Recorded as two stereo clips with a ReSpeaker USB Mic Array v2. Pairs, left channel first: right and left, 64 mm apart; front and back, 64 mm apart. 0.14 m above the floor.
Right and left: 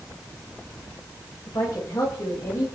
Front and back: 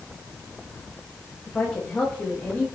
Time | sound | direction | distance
1.5 | a woman speaking | 70° right | 9 m